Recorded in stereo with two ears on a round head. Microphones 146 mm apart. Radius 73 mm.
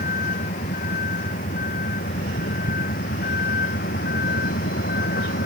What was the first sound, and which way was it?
A vehicle, 50° left (ahead or behind).